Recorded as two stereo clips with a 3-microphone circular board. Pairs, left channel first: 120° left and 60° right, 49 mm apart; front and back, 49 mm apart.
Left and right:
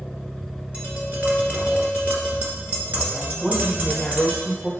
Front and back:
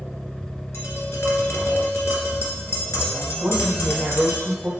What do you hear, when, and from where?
0.7 s tapping: 15° right, 1.7 m
3.4 s a woman speaking: 155° right, 1.1 m